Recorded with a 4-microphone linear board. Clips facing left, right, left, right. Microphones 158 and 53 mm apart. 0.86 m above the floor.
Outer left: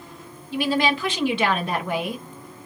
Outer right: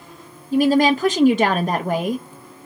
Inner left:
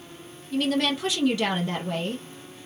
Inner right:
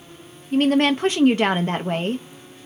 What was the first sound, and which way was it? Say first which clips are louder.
A woman speaking: outer right 7 dB, inner right 7 dB; 45° right (ahead or behind).